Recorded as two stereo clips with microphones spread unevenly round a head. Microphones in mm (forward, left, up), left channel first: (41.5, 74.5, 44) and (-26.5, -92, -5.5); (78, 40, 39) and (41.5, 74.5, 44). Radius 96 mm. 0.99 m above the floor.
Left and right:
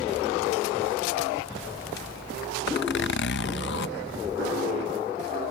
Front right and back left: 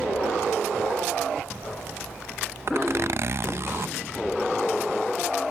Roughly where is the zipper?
Left.